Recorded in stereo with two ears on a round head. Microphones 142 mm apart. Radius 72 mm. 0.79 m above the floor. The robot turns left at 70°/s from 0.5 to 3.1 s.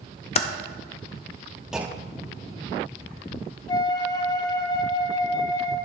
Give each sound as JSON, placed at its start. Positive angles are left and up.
{"t": 0.3, "sound": "typing on a keyboard", "side_deg": 40, "distance_m": 0.6}
{"t": 1.7, "sound": "a clunk", "azimuth_deg": -5, "distance_m": 0.5}
{"t": 3.7, "sound": "a flute", "side_deg": 25, "distance_m": 0.8}